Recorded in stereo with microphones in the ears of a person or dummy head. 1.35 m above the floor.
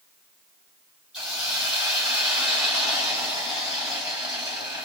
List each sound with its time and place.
1.1 s a hiss: 5° right (ahead or behind), 1.8 m